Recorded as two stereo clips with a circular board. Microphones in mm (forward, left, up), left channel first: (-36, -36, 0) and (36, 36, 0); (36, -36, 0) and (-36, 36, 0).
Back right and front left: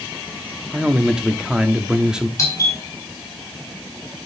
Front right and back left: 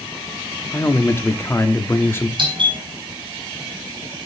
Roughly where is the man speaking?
Ahead right.